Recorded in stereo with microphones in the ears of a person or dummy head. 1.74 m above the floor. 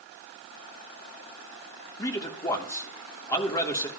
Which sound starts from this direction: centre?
A man speaking, at 2.0 s.